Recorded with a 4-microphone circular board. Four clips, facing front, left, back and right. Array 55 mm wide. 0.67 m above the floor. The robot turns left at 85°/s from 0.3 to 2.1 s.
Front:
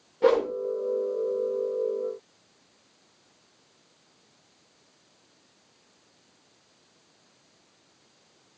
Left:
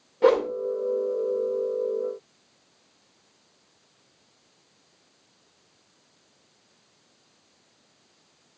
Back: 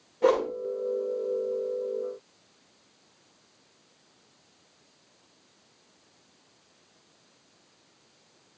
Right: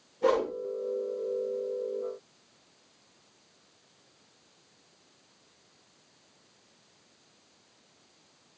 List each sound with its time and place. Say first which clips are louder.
0.2 s a whoosh: left 6 dB, front 2 dB; 80° left, 2.5 m; by 0.5 s 65° left, 2.5 m